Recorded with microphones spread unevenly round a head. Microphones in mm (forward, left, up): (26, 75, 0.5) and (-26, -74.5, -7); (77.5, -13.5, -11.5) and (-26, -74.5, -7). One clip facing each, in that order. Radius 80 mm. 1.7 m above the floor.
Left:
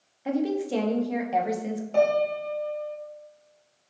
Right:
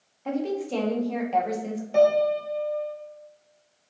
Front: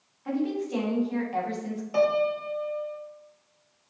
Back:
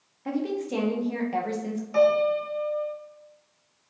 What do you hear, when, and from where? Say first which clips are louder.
0.2 s a woman speaking: left 2 dB, even; 150° left, 1.0 m
1.9 s a piano: right 3 dB, back 3 dB; 30° right, 1.7 m